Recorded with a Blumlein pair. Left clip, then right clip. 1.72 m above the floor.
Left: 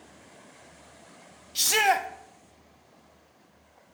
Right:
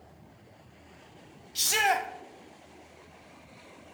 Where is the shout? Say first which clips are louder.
Left 3 dB; 10° left, 0.9 m.